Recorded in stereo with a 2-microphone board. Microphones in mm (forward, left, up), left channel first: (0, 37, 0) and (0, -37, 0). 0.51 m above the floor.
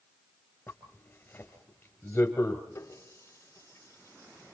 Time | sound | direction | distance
0.7 | a zipper | 30° left (ahead or behind) | 3.5 m
2.8 | a running tap | 45° left (ahead or behind) | 4 m